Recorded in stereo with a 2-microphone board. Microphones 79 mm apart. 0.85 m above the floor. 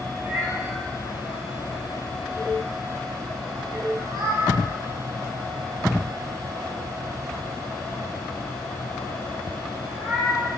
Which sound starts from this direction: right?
A cat meowing, at 0.1 s.